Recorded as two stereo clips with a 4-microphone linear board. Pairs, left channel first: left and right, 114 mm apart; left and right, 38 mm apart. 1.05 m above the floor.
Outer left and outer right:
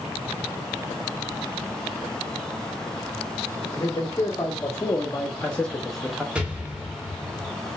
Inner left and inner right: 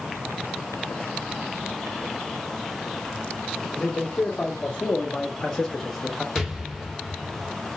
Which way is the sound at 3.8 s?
25° left (ahead or behind).